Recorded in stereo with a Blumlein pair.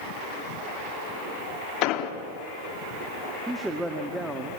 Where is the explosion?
40° left, 2.0 m.